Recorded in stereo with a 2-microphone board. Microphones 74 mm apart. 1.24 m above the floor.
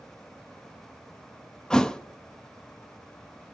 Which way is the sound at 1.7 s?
10° left (ahead or behind).